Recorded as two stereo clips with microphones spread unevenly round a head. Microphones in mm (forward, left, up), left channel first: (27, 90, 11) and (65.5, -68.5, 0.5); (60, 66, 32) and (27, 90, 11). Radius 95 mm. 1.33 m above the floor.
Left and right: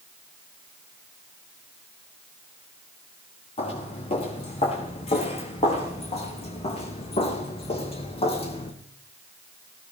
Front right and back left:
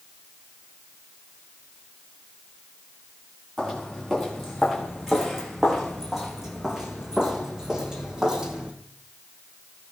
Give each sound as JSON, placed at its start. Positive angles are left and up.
{"t": 3.6, "sound": "footsteps", "azimuth_deg": 55, "distance_m": 5.5}